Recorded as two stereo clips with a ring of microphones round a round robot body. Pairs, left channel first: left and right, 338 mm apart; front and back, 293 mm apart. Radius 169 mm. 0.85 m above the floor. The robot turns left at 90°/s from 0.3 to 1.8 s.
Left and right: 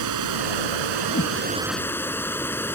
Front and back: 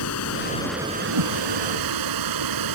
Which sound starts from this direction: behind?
A whoosh, at 1.1 s.